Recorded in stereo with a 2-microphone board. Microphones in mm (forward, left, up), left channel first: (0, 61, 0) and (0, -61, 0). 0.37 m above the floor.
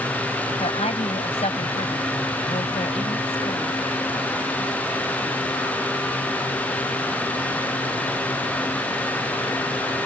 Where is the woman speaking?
60° left (ahead or behind).